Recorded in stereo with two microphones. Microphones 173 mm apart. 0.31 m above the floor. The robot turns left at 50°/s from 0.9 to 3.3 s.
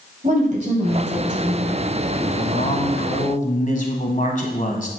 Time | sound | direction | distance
0.2 | a woman speaking | 75° right | 2 m
2.4 | a man speaking | 110° left | 1.7 m